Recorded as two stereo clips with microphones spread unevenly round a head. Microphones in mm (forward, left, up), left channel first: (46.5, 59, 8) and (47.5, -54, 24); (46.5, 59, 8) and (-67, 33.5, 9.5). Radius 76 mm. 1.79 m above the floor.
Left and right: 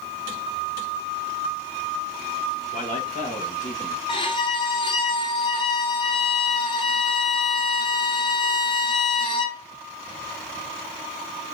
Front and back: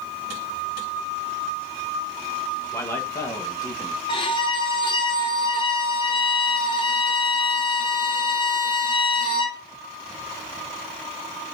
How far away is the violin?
About 1.9 m.